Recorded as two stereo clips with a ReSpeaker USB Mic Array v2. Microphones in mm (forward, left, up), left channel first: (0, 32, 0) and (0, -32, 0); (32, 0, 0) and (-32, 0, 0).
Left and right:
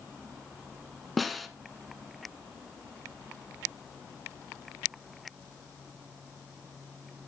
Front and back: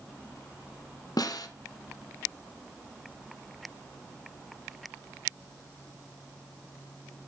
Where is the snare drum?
Straight ahead, 0.8 m.